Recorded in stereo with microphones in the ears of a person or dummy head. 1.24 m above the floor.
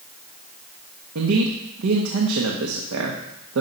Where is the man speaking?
85° right, 1.3 m.